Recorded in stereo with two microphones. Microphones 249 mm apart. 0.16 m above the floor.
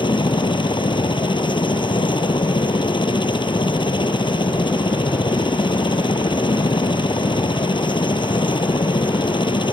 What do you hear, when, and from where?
0.0 s a helicopter: 20° left (ahead or behind)